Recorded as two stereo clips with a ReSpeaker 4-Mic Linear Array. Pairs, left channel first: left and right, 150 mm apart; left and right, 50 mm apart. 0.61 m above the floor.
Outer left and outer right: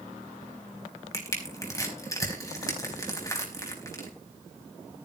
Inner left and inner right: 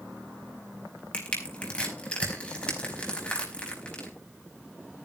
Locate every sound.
1.1 s crushing: 25° left (ahead or behind), 5 m